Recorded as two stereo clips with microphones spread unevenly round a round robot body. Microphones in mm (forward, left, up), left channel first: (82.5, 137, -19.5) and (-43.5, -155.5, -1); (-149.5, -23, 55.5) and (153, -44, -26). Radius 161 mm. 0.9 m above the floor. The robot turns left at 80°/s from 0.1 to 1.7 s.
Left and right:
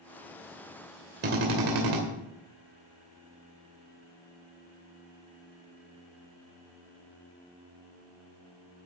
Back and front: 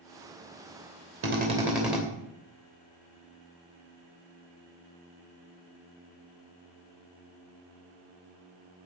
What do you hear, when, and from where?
1.2 s a drill: 55° right, 2.5 m; by 2.0 s 90° right, 2.5 m